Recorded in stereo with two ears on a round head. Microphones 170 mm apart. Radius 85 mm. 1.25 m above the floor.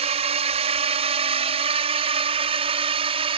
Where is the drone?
35° right (ahead or behind); by 3.4 s 30° right (ahead or behind).